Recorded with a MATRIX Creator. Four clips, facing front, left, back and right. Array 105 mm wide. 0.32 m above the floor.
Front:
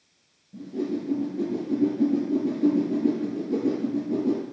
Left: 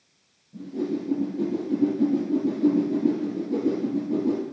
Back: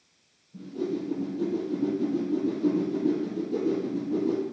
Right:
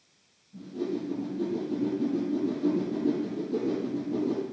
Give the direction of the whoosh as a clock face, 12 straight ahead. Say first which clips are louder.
Left 4 dB, front 2 dB; 11 o'clock.